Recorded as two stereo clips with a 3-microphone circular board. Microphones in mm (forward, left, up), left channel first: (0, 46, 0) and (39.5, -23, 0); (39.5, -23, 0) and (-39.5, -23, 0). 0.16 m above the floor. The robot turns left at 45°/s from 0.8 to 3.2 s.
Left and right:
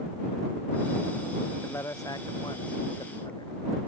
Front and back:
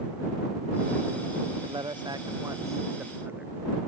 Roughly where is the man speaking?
Behind.